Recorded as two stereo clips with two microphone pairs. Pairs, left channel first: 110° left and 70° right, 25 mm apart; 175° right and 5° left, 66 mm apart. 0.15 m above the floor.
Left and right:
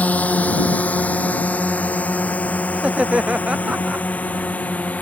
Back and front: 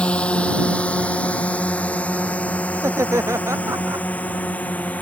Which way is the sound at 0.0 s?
110° left.